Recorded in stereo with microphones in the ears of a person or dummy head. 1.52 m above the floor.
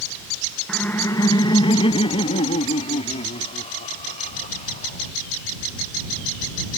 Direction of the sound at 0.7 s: 5° left (ahead or behind).